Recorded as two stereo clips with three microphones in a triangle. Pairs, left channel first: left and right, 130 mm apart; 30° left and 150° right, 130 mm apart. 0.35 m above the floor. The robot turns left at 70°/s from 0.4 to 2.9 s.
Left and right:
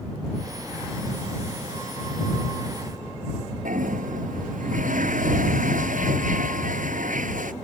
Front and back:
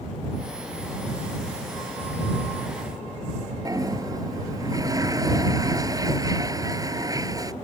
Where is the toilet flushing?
85° right.